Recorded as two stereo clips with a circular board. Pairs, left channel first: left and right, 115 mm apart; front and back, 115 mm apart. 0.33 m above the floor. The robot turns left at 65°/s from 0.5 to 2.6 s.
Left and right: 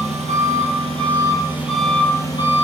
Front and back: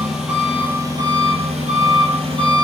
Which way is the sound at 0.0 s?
95° right.